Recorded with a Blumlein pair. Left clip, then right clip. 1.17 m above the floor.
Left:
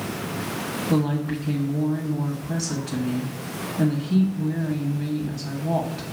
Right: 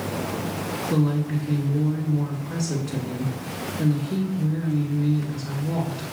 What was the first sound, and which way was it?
A woman speaking, 50° left.